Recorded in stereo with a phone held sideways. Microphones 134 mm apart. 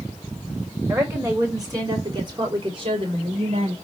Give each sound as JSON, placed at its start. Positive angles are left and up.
{"t": 0.9, "sound": "a woman speaking", "side_deg": -25, "distance_m": 4.5}